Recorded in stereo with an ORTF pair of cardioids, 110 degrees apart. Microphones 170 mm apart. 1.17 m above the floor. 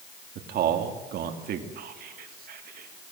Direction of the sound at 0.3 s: 65° right.